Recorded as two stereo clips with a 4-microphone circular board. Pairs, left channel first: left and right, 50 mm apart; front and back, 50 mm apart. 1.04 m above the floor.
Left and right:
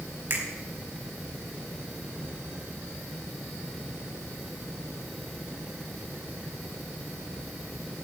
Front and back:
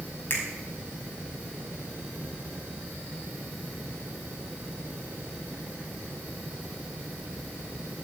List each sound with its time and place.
0.3 s a finger snap: 50° right, 5 m